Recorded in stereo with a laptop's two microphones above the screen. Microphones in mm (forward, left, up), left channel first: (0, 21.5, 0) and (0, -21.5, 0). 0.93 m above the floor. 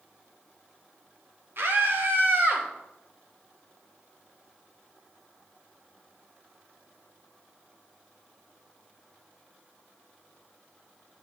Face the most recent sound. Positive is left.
turn(degrees=-45)  # may be behind; listen again after turning